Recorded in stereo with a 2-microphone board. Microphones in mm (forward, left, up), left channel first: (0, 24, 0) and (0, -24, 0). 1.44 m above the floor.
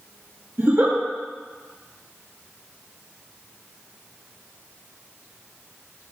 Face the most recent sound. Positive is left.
turn(degrees=-65)  # may be behind; listen again after turning